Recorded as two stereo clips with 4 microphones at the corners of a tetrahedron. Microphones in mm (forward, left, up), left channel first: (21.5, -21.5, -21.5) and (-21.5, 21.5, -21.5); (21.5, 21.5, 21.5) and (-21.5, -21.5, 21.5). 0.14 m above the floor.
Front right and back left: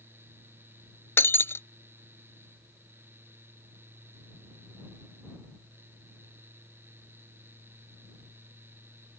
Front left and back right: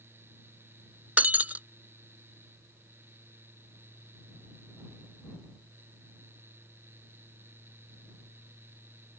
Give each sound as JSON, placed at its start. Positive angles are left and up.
{"t": 1.2, "sound": "breaking glass", "azimuth_deg": -80}